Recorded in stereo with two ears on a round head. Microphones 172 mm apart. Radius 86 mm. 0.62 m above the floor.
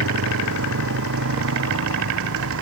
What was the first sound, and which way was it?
A motorcycle, 90° right.